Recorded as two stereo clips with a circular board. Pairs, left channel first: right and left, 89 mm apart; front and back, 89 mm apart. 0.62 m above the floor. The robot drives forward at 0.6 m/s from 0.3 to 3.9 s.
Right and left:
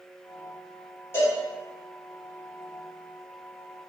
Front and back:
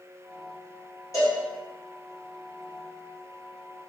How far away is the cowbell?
About 1.9 m.